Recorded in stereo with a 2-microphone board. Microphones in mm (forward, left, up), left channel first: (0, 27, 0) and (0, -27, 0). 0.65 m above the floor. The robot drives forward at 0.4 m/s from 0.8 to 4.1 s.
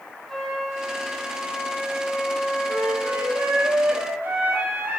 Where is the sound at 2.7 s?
60° right (ahead or behind), 2.0 m; by 5.0 s 45° right (ahead or behind), 2.5 m.